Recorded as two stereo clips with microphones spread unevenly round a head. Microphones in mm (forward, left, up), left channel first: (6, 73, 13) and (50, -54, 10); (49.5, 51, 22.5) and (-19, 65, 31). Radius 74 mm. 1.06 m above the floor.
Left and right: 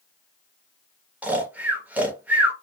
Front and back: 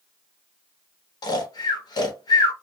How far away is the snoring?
About 1.0 m.